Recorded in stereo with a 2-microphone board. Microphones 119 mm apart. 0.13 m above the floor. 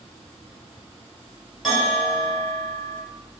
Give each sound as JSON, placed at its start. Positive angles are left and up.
{"t": 1.6, "sound": "a bell", "side_deg": 0, "distance_m": 1.6}